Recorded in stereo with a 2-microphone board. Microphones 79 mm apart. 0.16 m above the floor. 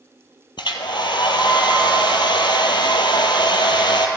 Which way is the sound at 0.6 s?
75° left (ahead or behind).